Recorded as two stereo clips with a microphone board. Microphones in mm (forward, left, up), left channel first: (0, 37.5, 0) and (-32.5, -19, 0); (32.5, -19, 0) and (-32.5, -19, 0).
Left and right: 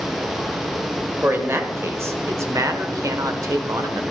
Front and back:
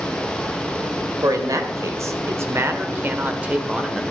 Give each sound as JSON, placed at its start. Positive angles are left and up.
{"t": 1.2, "sound": "a man speaking", "azimuth_deg": -170, "distance_m": 1.6}